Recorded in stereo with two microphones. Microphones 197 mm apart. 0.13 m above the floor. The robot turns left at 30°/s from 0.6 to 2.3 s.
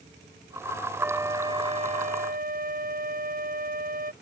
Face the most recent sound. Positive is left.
turn(degrees=-45)